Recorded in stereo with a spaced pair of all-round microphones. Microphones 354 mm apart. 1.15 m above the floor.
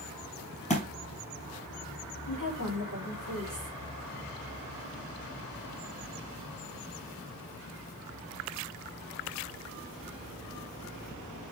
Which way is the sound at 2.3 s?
65° left (ahead or behind).